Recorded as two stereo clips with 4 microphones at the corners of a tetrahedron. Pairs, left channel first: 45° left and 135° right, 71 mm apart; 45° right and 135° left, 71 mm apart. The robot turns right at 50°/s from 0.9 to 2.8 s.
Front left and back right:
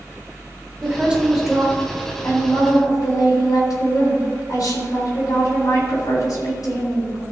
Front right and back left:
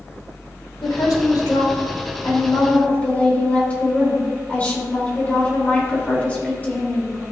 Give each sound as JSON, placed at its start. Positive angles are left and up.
{"t": 0.8, "sound": "a woman speaking", "azimuth_deg": -70, "distance_m": 3.5}